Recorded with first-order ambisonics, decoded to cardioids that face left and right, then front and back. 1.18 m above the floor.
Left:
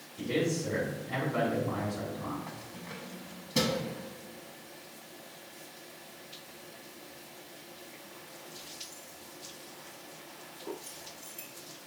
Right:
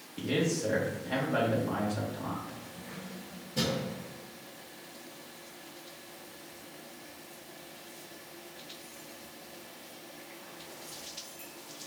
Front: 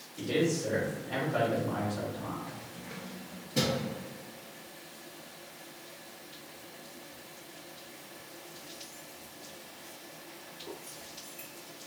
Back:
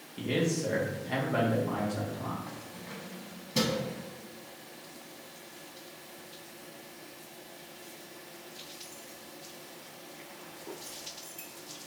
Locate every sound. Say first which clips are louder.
0.2 s a man speaking: right 1 dB, front 1 dB; 135° right, 1.6 m
2.5 s keys jangling: left 1 dB, even; 120° left, 1.2 m